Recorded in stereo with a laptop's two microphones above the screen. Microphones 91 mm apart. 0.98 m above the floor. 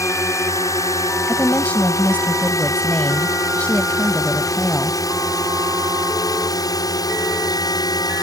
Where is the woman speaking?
15° left (ahead or behind).